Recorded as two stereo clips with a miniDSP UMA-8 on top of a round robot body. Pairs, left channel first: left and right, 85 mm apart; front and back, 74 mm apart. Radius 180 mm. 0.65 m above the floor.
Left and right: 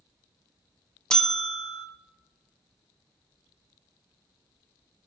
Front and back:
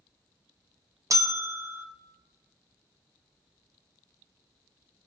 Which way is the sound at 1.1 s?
170° left.